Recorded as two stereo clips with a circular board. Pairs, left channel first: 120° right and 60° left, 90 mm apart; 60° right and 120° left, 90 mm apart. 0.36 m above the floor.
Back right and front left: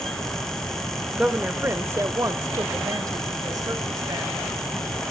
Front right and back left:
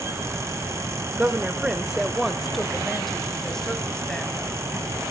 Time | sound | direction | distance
1.1 | a woman speaking | 115° left | 0.8 m